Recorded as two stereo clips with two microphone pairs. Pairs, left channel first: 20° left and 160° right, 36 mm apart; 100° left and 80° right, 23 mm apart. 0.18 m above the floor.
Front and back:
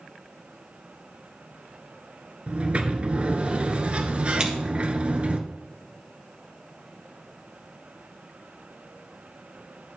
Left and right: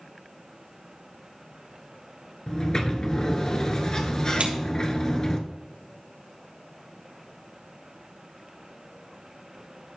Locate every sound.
2.5 s a sliding door: 150° left, 1.0 m
4.4 s scissors: 90° right, 2.5 m